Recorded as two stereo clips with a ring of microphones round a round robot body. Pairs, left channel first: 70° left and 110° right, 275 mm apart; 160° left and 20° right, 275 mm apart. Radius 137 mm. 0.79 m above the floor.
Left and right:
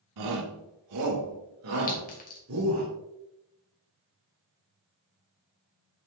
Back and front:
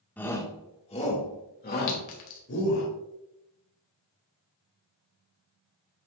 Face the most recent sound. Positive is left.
turn(degrees=130)